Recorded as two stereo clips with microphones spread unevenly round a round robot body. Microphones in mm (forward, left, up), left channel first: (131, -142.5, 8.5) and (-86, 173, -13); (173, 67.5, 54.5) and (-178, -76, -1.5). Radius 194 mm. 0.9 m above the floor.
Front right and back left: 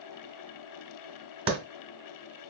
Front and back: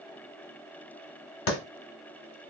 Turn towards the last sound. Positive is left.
turn(degrees=50)